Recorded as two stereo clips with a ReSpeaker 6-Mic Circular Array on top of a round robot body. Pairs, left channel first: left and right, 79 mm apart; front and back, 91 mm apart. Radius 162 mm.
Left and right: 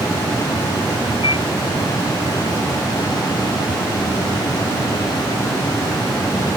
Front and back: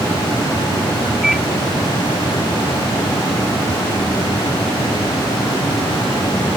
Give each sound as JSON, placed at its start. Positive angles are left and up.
{"t": 1.2, "sound": "a microwave", "azimuth_deg": 95}